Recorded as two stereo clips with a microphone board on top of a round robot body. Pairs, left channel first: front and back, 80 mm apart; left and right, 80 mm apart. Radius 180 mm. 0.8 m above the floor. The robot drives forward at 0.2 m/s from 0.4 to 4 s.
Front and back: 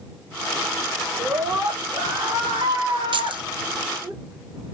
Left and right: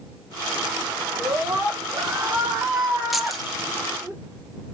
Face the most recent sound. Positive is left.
turn(degrees=180)